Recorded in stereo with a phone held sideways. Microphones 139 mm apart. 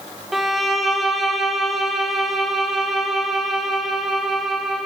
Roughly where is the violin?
Centre.